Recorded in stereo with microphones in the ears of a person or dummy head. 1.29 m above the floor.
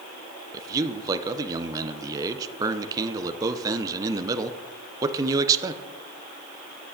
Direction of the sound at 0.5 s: 20° right (ahead or behind).